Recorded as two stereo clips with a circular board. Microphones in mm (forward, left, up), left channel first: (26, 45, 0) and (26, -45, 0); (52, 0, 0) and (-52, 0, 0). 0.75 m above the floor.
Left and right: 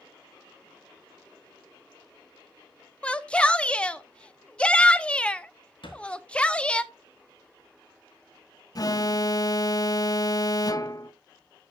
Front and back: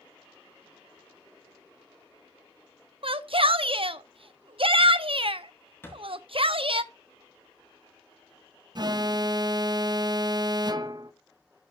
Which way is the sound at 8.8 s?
135° left.